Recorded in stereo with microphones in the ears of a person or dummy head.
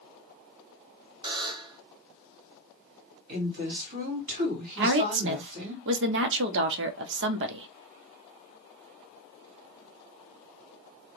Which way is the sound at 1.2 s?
25° right (ahead or behind).